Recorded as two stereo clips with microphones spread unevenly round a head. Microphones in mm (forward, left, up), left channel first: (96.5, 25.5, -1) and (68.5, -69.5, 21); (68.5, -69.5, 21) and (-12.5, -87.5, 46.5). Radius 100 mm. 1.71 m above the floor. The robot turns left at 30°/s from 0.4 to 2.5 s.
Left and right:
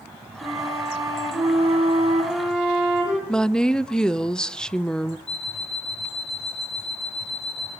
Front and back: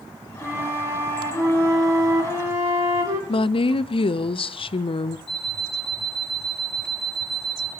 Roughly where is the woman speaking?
Ahead.